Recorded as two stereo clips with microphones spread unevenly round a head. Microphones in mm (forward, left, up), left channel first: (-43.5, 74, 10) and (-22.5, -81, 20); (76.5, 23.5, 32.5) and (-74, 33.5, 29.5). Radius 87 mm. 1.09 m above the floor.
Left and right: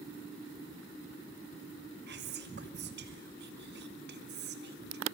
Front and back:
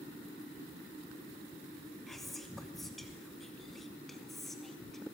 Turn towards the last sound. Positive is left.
turn(degrees=-95)